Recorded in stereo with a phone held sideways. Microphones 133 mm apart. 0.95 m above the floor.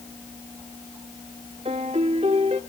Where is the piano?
50° right (ahead or behind), 1.4 m.